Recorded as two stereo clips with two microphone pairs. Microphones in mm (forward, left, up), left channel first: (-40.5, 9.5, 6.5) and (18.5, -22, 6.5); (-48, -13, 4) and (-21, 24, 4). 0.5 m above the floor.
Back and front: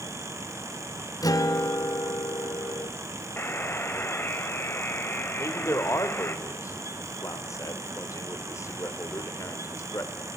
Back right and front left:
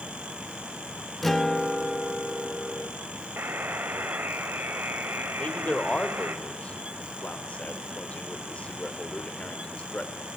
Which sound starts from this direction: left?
A buzzer, at 3.4 s.